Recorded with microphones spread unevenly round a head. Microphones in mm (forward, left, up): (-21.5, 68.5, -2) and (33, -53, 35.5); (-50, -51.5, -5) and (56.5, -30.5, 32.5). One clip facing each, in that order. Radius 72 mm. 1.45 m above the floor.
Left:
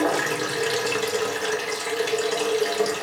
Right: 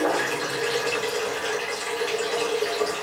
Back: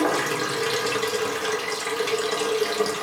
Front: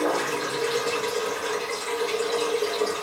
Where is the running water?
160° left, 0.8 m.